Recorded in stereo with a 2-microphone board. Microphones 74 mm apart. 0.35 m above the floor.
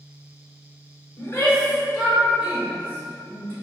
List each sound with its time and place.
1.2 s a shout: 35° left (ahead or behind), 1.0 m; by 3.5 s 40° right (ahead or behind), 1.4 m